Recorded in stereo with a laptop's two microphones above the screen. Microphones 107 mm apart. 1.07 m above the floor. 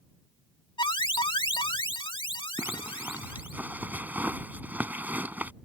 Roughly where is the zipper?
Centre.